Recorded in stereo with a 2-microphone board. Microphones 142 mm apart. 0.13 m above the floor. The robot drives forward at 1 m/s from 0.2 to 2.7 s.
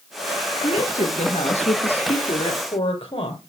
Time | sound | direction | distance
0.6 | a woman speaking | 55° left (ahead or behind) | 2 m